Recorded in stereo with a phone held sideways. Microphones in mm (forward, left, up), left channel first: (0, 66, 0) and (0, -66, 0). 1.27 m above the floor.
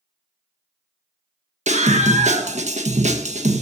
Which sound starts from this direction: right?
A scream, at 1.7 s.